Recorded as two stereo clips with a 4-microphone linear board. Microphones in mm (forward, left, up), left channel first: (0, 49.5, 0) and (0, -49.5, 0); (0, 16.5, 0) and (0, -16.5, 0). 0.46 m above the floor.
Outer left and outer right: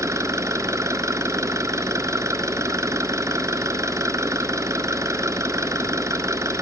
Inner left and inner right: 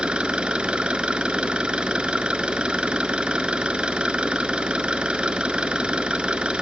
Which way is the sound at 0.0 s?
30° right (ahead or behind).